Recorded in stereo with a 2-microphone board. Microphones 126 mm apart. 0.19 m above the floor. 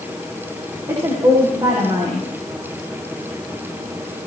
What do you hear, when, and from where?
0.9 s a woman speaking: 35° right (ahead or behind), 9.5 m